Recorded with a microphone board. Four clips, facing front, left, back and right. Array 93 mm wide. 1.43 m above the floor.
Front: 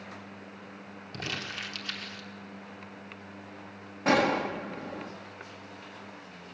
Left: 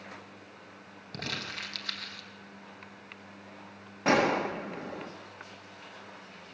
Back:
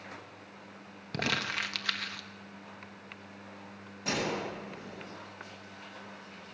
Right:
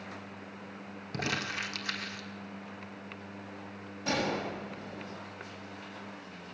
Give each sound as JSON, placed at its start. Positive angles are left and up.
{"t": 1.1, "sound": "crumpling", "azimuth_deg": -170, "distance_m": 2.5}
{"t": 4.0, "sound": "a gunshot", "azimuth_deg": 50, "distance_m": 1.6}